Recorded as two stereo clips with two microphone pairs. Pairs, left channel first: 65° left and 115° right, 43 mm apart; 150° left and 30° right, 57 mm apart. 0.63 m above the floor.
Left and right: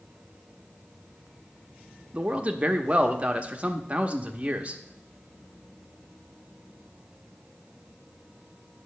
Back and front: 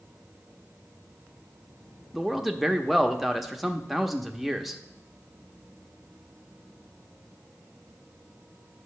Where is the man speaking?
120° right, 0.7 m.